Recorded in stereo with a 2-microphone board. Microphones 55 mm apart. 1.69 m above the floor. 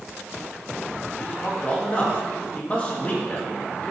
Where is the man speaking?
30° left (ahead or behind), 2.5 m.